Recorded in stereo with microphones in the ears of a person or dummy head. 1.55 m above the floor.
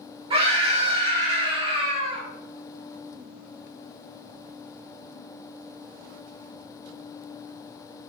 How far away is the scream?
About 1.3 m.